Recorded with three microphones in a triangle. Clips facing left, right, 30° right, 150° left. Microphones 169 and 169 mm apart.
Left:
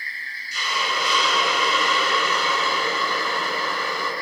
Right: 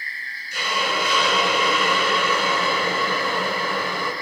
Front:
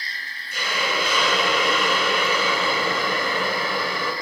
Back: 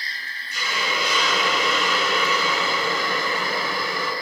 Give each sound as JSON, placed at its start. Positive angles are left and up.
{"t": 0.5, "sound": "a hiss", "azimuth_deg": -60, "distance_m": 5.5}